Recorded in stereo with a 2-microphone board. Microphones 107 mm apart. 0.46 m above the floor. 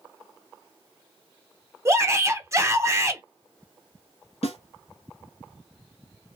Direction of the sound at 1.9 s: 30° right (ahead or behind).